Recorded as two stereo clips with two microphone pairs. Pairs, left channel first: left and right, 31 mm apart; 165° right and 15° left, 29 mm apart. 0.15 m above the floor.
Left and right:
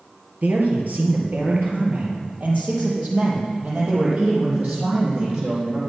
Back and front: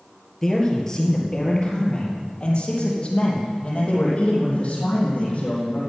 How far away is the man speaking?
About 3 m.